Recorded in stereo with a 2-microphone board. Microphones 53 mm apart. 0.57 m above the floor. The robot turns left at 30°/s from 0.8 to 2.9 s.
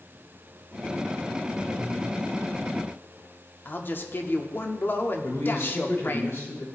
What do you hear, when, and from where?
1.8 s breathing: 15° right (ahead or behind), 4.5 m; by 2.0 s 5° right (ahead or behind), 4.5 m
3.6 s a man speaking: 45° left (ahead or behind), 0.8 m
5.2 s a man speaking: 55° left (ahead or behind), 2.5 m